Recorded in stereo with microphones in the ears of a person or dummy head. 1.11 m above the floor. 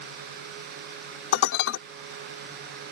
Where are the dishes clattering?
70° left (ahead or behind).